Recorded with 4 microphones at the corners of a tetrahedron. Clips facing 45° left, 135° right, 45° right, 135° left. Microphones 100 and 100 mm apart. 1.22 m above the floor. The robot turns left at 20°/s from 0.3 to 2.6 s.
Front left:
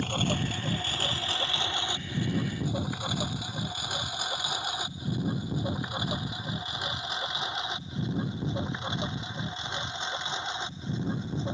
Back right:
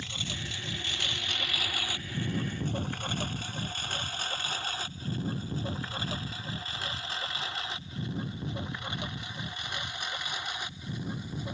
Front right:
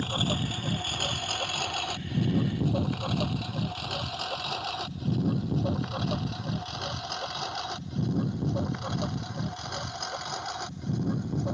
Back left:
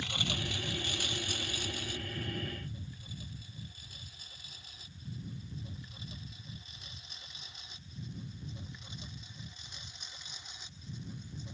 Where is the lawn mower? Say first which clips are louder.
Front left 11 dB, front right 9 dB; 5° left; by 11.5 s 20° right.